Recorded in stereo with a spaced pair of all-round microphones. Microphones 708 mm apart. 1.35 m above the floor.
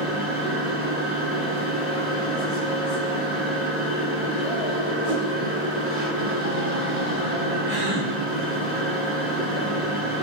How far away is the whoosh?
About 3.5 m.